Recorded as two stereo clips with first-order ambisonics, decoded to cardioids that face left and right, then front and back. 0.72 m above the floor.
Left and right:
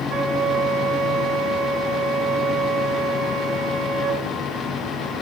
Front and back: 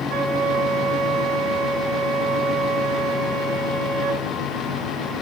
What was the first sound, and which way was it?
A flute, 150° right.